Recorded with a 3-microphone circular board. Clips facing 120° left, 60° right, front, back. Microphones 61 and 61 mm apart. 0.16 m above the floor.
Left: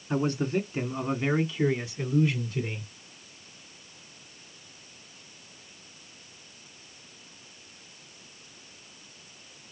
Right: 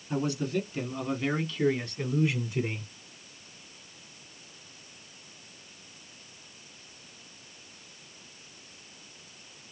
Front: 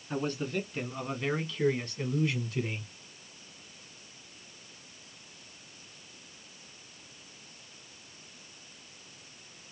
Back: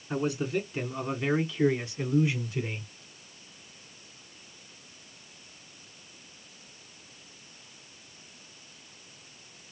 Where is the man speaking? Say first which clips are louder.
Left 2 dB, back 3 dB; 105° left, 1.5 m; by 2.9 s 105° right, 1.2 m.